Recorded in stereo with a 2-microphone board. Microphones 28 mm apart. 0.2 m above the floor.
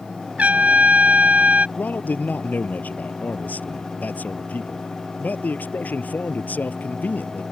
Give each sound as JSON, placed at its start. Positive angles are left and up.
{"t": 0.4, "sound": "a trumpet", "side_deg": -55}
{"t": 1.8, "sound": "a man speaking", "side_deg": 75}